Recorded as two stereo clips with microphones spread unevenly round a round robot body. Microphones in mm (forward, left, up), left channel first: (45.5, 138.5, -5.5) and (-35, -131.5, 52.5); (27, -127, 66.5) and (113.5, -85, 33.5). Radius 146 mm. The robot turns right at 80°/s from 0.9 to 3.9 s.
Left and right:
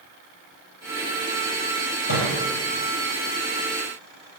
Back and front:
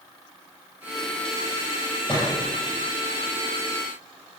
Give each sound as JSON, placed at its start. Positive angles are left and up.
{"t": 2.1, "sound": "a thud", "azimuth_deg": 110, "distance_m": 6.0}